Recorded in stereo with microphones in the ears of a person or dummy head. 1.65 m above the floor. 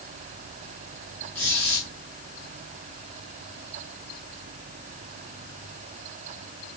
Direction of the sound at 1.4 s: 5° left (ahead or behind).